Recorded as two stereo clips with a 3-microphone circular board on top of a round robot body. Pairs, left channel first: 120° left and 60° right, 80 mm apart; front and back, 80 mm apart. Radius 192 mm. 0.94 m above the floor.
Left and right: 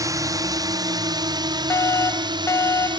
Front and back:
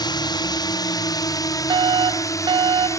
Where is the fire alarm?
170° left.